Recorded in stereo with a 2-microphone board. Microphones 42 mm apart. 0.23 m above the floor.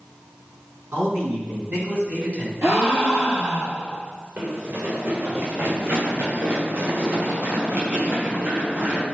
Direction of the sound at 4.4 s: 65° right (ahead or behind).